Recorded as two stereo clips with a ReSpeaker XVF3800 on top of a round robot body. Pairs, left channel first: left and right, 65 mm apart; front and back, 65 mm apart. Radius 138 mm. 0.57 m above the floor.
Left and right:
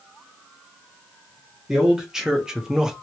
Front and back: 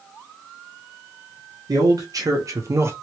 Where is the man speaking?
170° right, 1.3 m.